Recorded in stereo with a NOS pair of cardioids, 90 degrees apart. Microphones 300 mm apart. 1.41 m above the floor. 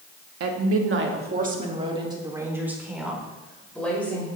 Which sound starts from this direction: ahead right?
A woman speaking, at 0.4 s.